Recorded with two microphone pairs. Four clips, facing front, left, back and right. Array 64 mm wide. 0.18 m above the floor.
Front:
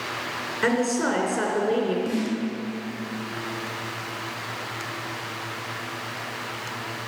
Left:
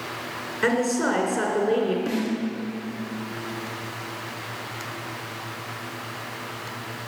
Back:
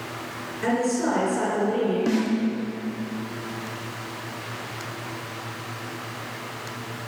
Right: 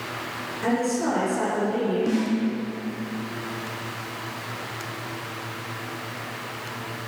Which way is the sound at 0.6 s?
50° left.